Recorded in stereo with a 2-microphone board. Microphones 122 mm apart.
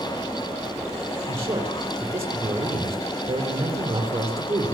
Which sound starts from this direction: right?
A man speaking, at 1.3 s.